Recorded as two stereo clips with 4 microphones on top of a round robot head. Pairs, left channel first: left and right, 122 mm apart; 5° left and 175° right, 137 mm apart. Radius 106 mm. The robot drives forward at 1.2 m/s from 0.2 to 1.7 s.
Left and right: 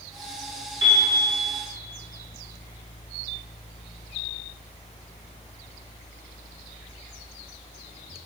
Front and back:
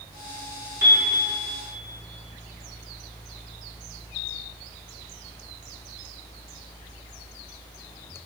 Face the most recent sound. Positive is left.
turn(degrees=-160)